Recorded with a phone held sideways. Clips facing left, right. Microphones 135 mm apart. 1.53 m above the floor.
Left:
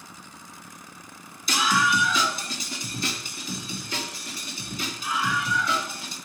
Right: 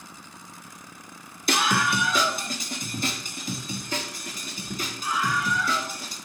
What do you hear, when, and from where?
1.5 s a scream: 60° right (ahead or behind), 0.9 m; by 6.2 s 45° right (ahead or behind), 5.5 m